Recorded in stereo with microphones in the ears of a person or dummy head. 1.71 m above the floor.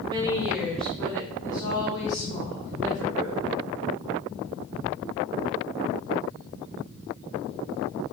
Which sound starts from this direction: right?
A woman speaking, at 0.1 s.